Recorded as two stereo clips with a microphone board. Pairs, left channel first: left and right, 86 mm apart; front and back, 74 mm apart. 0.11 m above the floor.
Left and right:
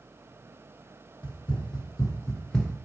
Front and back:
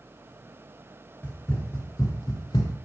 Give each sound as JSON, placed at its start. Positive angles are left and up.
{"t": 1.2, "sound": "running footsteps", "azimuth_deg": 70, "distance_m": 1.4}